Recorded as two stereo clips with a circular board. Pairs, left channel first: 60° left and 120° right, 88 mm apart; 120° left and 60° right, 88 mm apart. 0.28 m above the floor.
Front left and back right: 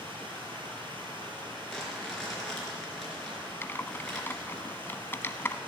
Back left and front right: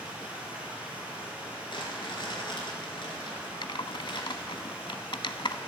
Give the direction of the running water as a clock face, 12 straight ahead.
4 o'clock.